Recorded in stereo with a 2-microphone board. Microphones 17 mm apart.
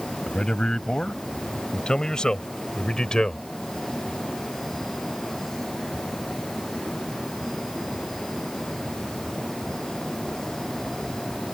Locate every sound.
0.3 s a man speaking: 50° left (ahead or behind); by 3.5 s 45° left (ahead or behind)